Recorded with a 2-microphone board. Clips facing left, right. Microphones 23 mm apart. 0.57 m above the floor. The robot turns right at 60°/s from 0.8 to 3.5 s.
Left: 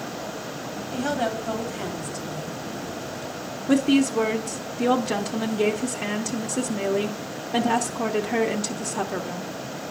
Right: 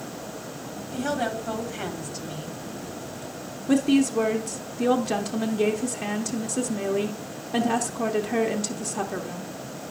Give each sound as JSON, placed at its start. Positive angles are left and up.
{"t": 0.9, "sound": "a woman speaking", "azimuth_deg": 135, "distance_m": 1.3}
{"t": 3.7, "sound": "a woman speaking", "side_deg": 10, "distance_m": 0.6}